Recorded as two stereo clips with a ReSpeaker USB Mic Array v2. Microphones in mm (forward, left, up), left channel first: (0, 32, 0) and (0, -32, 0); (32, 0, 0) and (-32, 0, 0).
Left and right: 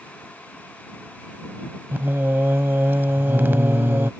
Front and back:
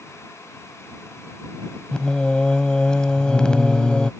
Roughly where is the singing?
Right.